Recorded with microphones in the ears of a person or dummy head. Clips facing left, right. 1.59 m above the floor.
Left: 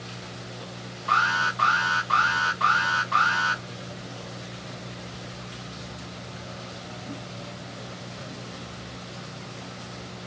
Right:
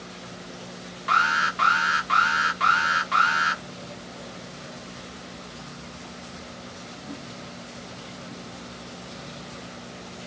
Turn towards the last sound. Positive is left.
turn(degrees=-30)  # may be behind; listen again after turning